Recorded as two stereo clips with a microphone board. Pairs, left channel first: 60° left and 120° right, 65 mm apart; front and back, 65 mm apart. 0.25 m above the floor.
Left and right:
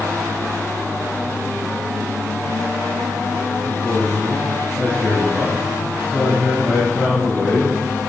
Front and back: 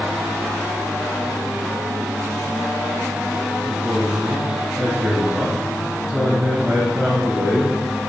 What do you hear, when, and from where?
3.6 s a man speaking: 125° left, 1.9 m